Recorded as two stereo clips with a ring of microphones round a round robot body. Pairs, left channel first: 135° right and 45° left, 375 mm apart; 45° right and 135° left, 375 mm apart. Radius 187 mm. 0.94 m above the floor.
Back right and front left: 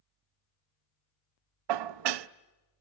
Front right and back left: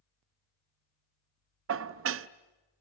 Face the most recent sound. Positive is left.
turn(degrees=75)